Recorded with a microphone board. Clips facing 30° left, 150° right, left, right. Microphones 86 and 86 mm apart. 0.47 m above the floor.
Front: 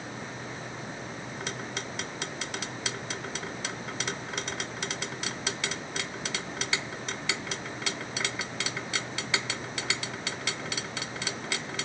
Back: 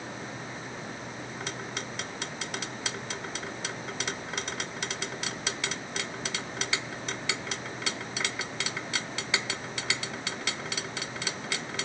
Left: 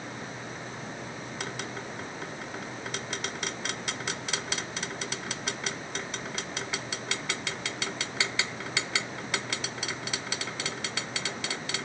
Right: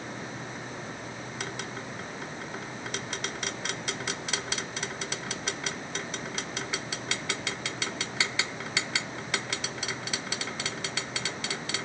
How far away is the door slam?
I don't hear a door slam.